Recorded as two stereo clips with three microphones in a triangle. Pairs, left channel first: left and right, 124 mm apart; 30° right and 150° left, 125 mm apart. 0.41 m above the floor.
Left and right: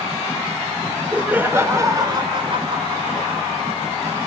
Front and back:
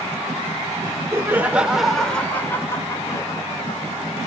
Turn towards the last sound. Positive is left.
turn(degrees=-75)